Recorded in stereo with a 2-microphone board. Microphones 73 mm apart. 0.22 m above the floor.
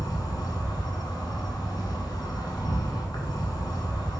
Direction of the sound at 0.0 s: 65° left (ahead or behind).